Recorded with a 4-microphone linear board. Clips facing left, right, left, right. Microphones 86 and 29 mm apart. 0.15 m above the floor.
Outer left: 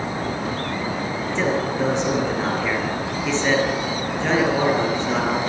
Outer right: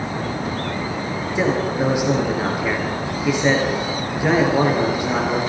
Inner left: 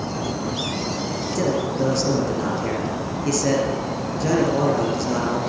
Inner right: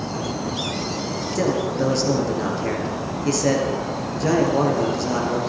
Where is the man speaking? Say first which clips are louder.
Outer right 2 dB, inner right 1 dB; 10° right (ahead or behind), 3.5 m.